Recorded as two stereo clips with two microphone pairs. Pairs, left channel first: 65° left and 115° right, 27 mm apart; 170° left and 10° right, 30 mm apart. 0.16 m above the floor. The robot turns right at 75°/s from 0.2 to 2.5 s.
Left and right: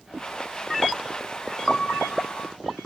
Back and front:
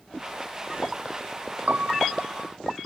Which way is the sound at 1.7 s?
10° left.